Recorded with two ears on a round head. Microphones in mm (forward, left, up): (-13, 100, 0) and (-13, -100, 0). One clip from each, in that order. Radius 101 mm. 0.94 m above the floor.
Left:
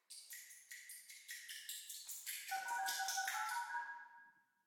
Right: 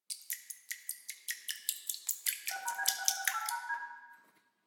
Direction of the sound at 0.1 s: 60° right (ahead or behind).